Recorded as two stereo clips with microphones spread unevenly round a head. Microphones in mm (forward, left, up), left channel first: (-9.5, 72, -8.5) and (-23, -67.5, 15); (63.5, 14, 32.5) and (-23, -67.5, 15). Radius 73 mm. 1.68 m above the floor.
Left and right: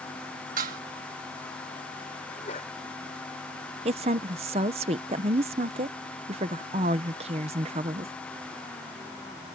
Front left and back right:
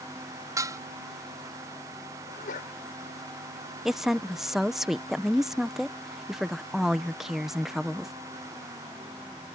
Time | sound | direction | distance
0.6 | dishes clattering | 70° right | ?
2.3 | a sneeze | 30° left | ?
3.9 | a woman speaking | 50° right | ?